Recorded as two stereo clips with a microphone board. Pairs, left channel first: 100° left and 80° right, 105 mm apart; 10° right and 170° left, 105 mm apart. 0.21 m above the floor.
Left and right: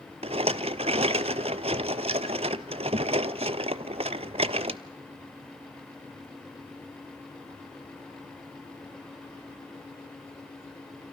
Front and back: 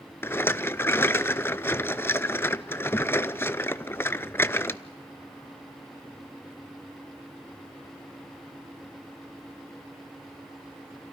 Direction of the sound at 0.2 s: 80° right.